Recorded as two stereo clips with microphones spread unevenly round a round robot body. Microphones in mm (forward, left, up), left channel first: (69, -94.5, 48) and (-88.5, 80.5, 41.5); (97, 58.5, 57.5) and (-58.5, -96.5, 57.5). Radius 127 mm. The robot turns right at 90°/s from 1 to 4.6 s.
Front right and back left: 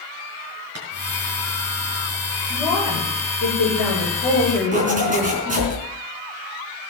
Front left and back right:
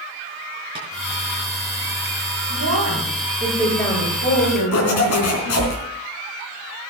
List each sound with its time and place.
0.8 s tapping: 155° left, 6 m
2.5 s a woman speaking: 150° right, 9 m; by 5.7 s 35° left, 9 m
4.7 s a zipper: 70° left, 3.5 m